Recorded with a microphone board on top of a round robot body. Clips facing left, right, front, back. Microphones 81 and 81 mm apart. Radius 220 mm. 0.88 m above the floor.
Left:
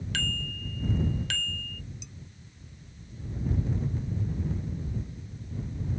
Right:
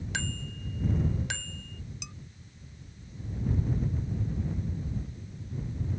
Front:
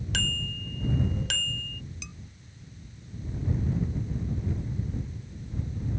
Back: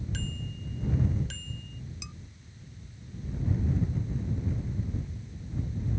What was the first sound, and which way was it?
A bicycle bell, 20° right.